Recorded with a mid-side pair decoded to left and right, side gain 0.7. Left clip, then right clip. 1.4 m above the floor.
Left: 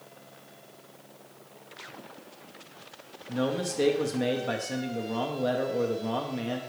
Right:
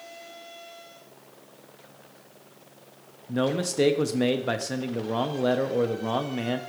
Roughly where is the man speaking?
Ahead right.